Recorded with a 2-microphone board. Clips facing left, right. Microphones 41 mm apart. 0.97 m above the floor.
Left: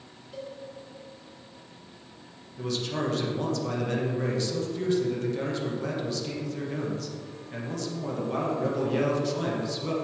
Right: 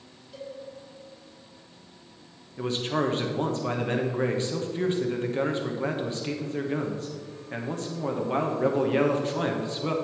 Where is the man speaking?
30° right (ahead or behind), 1.0 m.